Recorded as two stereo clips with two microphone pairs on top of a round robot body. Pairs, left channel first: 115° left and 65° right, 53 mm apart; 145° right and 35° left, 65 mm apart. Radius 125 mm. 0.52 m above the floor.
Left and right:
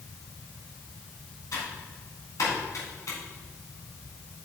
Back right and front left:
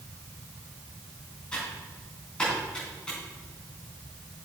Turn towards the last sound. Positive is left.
turn(degrees=140)